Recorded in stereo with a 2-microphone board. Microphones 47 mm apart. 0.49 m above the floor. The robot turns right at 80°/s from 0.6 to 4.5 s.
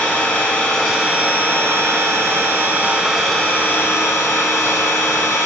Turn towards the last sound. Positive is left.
turn(degrees=105)